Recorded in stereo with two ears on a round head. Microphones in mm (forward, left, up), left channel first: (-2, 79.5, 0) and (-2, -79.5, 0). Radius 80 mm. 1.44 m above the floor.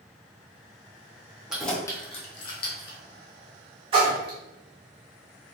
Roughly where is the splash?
Right.